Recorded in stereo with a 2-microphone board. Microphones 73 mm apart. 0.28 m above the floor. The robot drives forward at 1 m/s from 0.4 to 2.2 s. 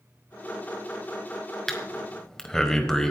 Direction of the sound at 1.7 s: 5° left (ahead or behind).